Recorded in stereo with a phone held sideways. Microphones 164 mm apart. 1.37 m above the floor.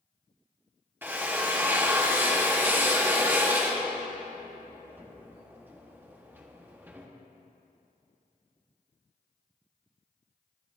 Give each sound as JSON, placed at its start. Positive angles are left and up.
{"t": 1.0, "sound": "a drill", "side_deg": -10, "distance_m": 1.0}